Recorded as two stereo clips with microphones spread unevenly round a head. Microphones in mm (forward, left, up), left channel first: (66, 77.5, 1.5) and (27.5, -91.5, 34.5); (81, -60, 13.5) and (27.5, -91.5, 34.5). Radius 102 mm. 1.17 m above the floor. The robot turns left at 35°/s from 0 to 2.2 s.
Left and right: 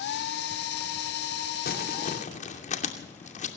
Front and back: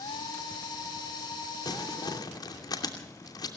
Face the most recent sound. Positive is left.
turn(degrees=30)